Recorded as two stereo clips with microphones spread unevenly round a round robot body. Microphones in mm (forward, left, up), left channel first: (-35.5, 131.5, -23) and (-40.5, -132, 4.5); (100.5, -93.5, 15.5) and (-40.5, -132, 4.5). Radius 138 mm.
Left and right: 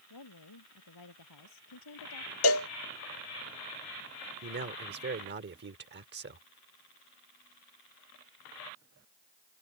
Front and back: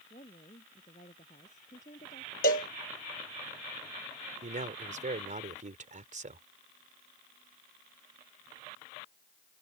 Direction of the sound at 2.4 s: 55° left.